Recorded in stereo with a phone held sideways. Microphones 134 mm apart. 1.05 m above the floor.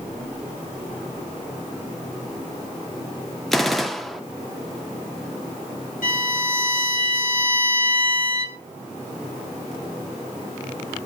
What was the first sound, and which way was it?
A gunshot, 5° left (ahead or behind).